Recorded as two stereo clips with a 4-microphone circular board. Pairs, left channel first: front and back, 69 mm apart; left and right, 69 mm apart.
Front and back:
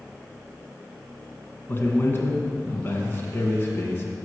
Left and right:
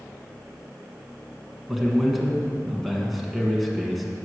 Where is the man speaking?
5° right, 1.2 m.